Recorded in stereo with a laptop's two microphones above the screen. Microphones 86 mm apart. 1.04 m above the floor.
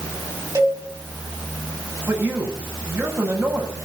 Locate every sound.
0.6 s a cowbell: 35° right (ahead or behind), 6 m
2.1 s a man speaking: 25° right (ahead or behind), 7.5 m